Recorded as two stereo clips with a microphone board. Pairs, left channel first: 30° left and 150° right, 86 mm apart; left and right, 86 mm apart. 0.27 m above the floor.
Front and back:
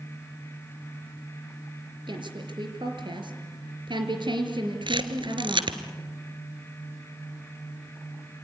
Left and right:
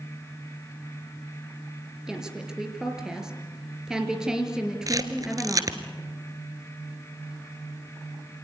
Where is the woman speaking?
170° right, 4.5 m.